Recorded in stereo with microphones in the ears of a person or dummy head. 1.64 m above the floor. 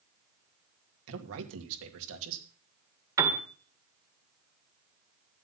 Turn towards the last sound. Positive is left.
turn(degrees=-20)  # may be behind; listen again after turning